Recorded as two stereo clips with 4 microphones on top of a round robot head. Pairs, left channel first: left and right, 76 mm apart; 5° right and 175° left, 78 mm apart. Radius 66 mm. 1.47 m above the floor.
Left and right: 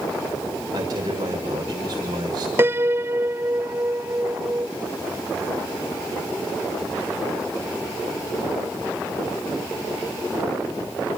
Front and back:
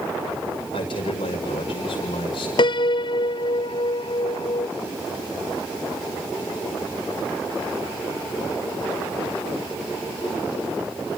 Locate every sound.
0.7 s a man speaking: 40° right, 6.5 m
2.6 s a piano: 25° right, 0.6 m